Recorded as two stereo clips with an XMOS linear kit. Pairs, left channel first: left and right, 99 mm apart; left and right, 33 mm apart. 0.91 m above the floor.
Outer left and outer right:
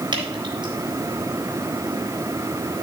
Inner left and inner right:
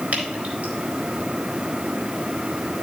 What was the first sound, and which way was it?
Dripping, 55° right (ahead or behind).